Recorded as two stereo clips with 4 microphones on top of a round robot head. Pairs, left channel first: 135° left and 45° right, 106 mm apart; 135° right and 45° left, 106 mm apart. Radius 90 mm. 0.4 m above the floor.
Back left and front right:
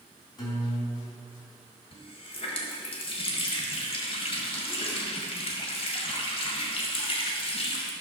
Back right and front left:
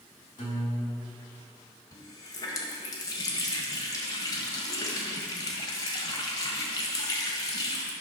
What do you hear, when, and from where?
0.4 s a guitar: straight behind, 3.5 m
1.9 s a running tap: 170° left, 1.7 m